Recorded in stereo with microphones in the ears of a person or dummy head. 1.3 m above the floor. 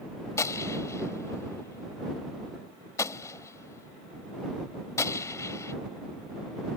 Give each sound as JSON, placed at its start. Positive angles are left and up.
{"t": 0.4, "sound": "a gunshot", "side_deg": 15}